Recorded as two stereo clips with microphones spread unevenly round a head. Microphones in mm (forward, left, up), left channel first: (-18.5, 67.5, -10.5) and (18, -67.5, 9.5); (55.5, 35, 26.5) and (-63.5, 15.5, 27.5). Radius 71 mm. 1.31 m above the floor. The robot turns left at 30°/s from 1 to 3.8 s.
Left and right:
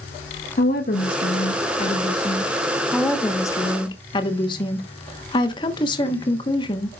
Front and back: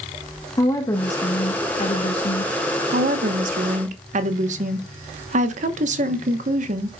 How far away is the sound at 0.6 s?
About 1.2 m.